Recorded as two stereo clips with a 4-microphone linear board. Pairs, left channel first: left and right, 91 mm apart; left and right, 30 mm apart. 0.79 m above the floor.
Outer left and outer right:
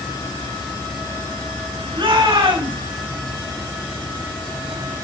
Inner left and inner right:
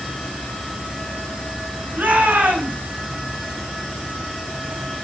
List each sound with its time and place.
1.9 s a shout: 80° right, 6 m